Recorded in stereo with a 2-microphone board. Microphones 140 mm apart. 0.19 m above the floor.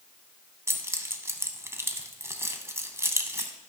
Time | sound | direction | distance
0.7 | keys jangling | 20° right (ahead or behind) | 0.7 m